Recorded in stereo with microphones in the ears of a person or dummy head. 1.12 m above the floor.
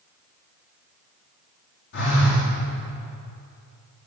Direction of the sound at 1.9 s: 50° left (ahead or behind).